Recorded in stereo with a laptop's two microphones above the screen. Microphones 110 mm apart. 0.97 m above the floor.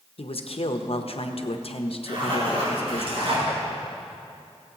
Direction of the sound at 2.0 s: 60° right (ahead or behind).